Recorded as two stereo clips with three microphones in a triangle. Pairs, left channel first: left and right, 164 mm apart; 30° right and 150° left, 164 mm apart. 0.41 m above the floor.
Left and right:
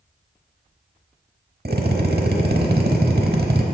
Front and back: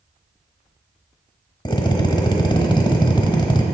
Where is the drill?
95° right, 0.9 m.